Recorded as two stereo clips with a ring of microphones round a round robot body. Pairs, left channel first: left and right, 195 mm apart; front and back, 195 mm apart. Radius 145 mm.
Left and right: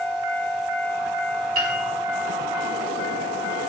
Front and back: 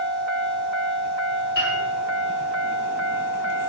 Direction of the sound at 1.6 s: 55° right.